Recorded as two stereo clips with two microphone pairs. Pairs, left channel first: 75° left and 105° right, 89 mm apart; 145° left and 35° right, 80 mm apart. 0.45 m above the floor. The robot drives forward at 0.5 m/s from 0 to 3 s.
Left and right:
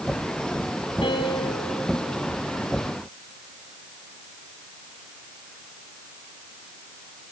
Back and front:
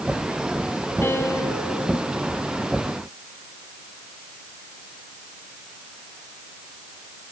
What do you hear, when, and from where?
1.0 s a piano: 90° left, 2 m; by 1.7 s 100° left, 2 m